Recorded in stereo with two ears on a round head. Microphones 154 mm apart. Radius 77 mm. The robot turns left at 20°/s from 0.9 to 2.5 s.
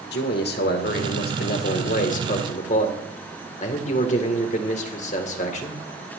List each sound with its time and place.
0.1 s a man speaking: 80° left, 2.0 m; by 5.8 s 50° left, 2.0 m